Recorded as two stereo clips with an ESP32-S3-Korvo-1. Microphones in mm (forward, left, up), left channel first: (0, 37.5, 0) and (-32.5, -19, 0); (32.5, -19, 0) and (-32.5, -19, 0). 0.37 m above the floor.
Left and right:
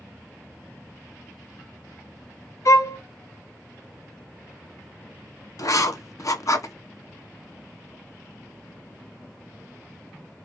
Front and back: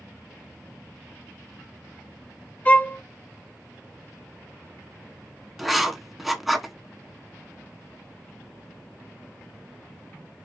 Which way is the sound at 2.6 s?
55° left.